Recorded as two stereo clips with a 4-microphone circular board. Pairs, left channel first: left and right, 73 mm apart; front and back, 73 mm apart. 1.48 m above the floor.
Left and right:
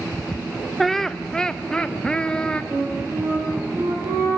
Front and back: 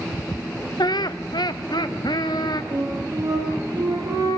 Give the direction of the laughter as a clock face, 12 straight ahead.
12 o'clock.